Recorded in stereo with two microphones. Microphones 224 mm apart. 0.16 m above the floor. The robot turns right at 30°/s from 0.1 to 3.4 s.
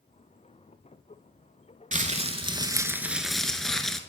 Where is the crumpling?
40° right, 0.7 m; by 4.0 s straight ahead, 0.7 m.